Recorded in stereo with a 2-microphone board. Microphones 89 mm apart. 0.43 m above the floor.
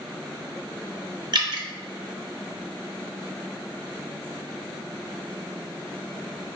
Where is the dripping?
55° right (ahead or behind), 0.7 m.